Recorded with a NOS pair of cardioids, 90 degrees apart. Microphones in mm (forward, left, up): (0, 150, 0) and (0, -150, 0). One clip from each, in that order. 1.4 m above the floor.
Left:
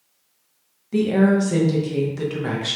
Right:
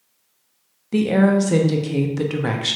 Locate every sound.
0.9 s a woman speaking: 25° right, 0.5 m